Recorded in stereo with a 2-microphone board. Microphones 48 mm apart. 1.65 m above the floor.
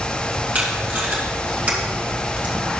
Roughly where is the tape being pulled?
Right.